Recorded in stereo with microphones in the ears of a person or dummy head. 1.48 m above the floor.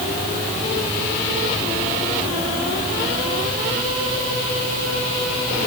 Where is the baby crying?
I don't hear a baby crying.